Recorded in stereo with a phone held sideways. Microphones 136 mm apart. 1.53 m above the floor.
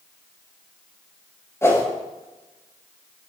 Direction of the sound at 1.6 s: 20° left (ahead or behind).